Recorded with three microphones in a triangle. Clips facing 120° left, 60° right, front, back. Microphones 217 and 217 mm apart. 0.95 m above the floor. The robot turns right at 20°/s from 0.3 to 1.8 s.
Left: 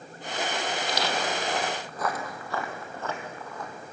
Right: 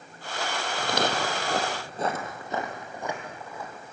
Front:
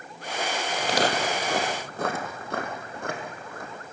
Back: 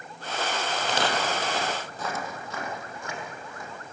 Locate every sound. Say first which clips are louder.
0.8 s footsteps: right 6 dB, front 4 dB; 50° right, 1.6 m; by 3.9 s 25° left, 2.5 m